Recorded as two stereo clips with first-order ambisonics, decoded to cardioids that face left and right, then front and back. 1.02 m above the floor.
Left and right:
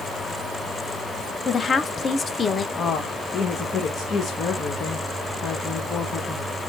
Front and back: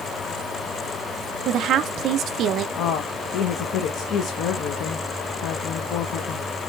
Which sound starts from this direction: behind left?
A woman speaking, at 1.4 s.